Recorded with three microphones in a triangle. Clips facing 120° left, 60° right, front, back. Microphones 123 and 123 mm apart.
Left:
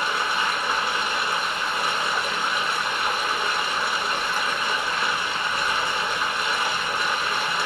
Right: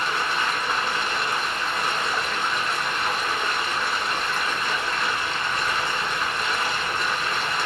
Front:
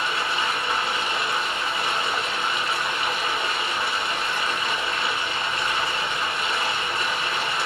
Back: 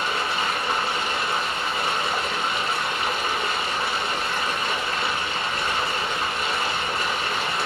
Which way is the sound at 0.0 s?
160° right.